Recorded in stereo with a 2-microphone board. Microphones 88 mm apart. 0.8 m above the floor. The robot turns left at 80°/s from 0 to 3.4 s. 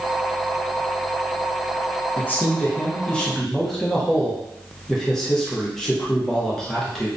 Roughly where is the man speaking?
Centre.